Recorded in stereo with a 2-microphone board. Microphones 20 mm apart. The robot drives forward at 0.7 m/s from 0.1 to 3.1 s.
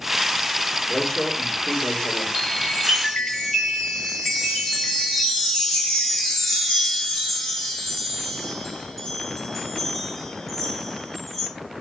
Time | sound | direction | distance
0.9 | a man speaking | 30° left (ahead or behind) | 2.5 m
2.4 | a chime | 45° left (ahead or behind) | 7 m
4.2 | a chime | 15° left (ahead or behind) | 8.5 m